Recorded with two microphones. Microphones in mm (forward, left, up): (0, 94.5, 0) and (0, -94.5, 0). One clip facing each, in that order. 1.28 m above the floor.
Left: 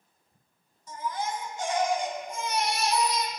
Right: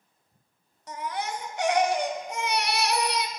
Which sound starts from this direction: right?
A baby crying, at 0.9 s.